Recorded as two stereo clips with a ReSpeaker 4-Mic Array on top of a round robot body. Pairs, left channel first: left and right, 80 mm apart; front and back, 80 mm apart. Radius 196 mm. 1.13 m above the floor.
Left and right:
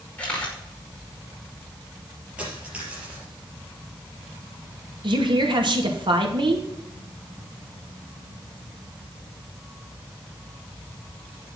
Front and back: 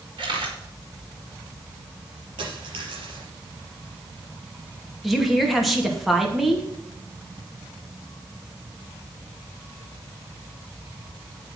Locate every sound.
0.2 s a camera shutter: 170° left, 5.5 m
2.4 s a dropped coin: 165° right, 5 m
5.0 s a woman speaking: 90° right, 2.5 m